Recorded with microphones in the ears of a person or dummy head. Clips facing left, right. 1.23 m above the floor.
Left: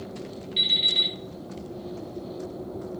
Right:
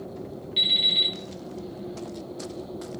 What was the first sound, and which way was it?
An alarm clock, 10° right (ahead or behind).